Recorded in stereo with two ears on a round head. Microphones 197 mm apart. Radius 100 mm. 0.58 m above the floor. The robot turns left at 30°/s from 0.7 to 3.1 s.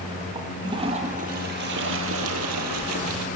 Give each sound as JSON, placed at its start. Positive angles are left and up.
{"t": 0.3, "sound": "a toilet flushing", "azimuth_deg": -20, "distance_m": 3.5}